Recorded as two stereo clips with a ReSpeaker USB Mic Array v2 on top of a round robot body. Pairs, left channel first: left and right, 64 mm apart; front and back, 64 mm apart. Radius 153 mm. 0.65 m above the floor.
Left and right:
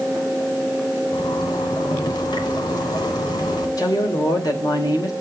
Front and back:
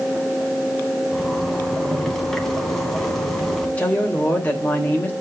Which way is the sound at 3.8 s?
70° left.